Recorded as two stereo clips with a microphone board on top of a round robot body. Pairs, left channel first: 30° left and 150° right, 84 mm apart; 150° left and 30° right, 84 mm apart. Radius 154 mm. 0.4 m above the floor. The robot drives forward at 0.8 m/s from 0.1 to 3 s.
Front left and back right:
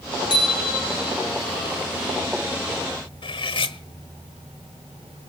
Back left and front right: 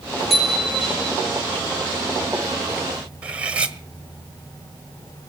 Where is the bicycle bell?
55° left, 7 m; by 1.2 s 65° left, 6.5 m.